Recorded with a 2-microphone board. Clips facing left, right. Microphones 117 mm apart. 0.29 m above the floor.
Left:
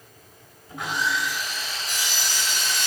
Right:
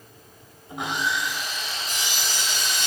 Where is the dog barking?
No dog barking in this recording.